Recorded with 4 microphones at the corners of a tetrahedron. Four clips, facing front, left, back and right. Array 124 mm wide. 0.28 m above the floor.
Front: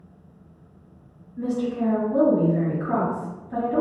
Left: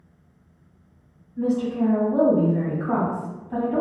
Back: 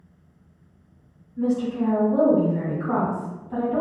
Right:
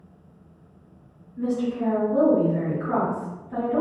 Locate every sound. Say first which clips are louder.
1.4 s a woman speaking: left 3 dB, back 2 dB; 130° left, 1.4 m